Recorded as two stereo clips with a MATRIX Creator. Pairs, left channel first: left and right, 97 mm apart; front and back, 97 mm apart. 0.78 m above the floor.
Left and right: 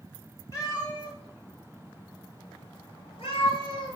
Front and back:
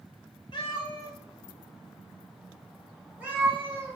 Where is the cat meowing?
30° left, 1.1 m; by 4.0 s 115° left, 1.5 m.